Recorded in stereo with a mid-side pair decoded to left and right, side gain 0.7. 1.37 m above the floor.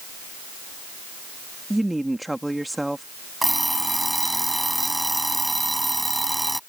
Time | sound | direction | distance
1.7 | a woman speaking | 5° right | ?
3.4 | an alarm clock | 5° right | ?